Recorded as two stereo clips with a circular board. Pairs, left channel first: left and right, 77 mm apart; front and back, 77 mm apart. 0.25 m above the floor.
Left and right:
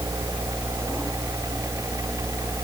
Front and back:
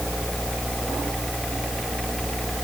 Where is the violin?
No violin in this recording.